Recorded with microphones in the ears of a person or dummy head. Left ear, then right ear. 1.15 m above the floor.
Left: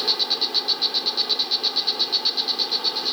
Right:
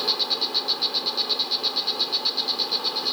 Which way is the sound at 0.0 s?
10° left (ahead or behind).